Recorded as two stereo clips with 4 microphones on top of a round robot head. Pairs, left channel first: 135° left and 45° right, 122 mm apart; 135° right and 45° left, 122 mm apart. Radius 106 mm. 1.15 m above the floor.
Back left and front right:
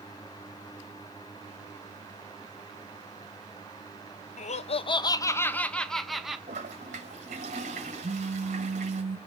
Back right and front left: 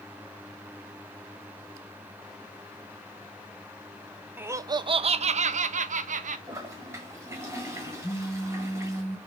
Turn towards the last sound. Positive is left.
turn(degrees=-60)